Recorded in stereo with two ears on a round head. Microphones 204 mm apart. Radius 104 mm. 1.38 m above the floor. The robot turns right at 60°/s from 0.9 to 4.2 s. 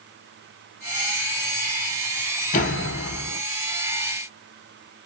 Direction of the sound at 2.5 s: 35° left.